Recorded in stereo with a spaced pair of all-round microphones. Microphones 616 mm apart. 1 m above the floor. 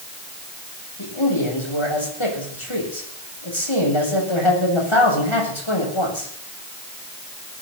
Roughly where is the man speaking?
Left.